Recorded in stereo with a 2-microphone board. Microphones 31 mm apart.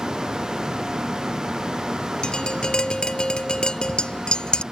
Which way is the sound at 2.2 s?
30° left (ahead or behind).